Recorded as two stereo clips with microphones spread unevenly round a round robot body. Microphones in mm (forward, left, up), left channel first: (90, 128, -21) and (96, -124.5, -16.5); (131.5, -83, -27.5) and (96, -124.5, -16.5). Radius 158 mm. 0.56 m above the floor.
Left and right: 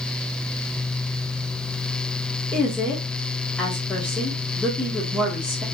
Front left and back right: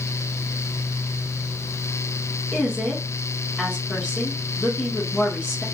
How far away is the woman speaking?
About 1.1 m.